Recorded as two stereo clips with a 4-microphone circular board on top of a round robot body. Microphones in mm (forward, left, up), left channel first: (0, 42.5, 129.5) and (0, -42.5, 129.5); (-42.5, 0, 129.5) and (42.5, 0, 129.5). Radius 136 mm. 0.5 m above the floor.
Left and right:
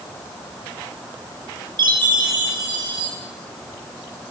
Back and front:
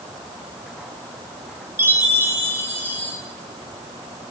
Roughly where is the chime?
Ahead right.